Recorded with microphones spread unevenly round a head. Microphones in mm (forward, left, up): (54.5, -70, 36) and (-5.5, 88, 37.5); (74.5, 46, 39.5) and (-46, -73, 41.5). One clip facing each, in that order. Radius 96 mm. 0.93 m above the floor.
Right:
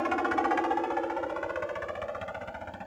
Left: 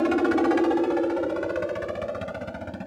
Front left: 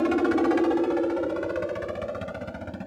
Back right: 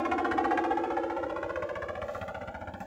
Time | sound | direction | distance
0.0 | a helicopter | 75° left | ?